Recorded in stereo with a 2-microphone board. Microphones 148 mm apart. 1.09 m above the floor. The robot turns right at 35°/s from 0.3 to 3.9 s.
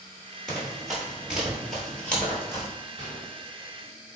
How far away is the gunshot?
About 1.9 m.